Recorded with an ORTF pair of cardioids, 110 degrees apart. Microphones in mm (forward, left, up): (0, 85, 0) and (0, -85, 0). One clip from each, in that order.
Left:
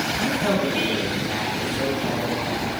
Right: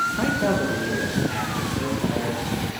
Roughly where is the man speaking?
Ahead right.